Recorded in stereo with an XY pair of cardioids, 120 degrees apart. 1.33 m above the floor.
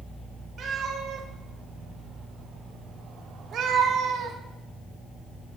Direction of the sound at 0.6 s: 50° right.